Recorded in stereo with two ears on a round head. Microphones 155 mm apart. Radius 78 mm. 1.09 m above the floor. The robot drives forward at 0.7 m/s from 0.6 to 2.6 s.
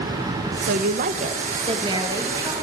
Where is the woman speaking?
60° right (ahead or behind), 0.6 m; by 2.5 s 20° right (ahead or behind), 1.6 m.